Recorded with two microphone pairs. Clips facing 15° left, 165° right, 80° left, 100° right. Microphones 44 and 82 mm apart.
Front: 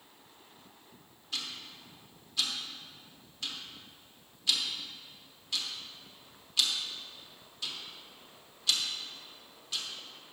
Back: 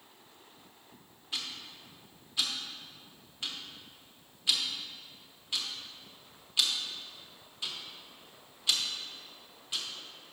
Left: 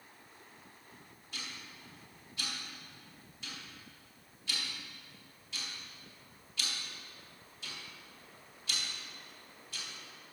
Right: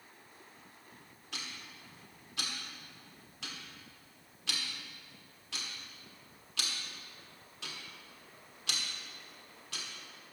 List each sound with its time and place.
1.3 s ticking: 95° right, 1.1 m